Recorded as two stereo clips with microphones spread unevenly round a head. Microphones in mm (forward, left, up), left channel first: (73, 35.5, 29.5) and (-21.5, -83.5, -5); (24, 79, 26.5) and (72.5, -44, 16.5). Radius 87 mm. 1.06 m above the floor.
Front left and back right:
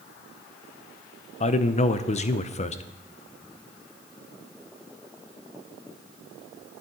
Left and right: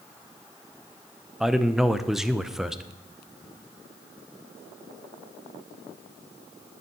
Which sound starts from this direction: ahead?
A man speaking, at 1.4 s.